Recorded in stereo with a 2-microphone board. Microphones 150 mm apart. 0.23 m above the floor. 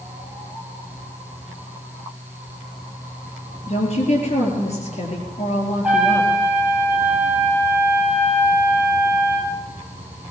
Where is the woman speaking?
45° left (ahead or behind), 4 m.